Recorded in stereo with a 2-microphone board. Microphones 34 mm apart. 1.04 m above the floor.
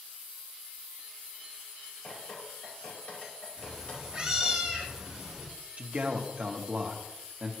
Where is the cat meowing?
20° right (ahead or behind), 3 m.